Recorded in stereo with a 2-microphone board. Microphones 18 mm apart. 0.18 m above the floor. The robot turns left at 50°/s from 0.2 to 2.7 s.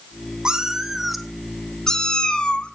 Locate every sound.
0.5 s a cat meowing: 135° right, 1.1 m; by 2.7 s 115° left, 1.1 m